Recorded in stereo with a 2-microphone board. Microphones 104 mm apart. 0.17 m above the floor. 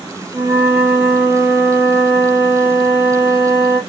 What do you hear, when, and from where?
0.3 s a flute: 25° right (ahead or behind), 3.5 m